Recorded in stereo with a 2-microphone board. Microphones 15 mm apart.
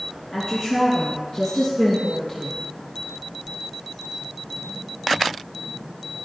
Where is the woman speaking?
25° left (ahead or behind), 3.5 m; by 2.6 s 55° left (ahead or behind), 2 m.